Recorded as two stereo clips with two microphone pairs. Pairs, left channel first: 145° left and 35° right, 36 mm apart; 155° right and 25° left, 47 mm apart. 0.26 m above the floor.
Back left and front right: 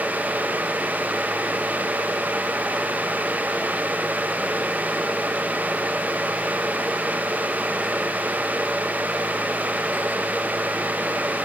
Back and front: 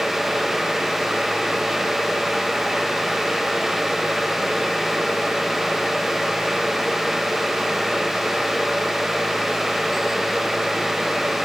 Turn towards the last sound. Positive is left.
No sound to turn to.